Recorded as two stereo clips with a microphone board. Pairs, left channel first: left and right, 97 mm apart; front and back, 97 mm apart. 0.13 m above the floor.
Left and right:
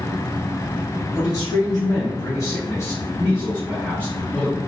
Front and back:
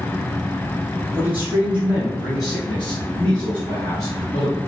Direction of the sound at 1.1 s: 120° left.